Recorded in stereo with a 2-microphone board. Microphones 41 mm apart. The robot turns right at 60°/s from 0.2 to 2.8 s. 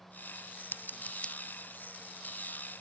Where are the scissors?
60° left (ahead or behind); by 1.3 s 20° left (ahead or behind).